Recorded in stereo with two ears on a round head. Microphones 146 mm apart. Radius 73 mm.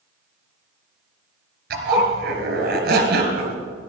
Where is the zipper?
65° right (ahead or behind), 3 m.